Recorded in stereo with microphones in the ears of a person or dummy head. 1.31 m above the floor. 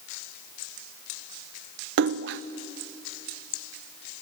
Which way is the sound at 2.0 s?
60° right (ahead or behind).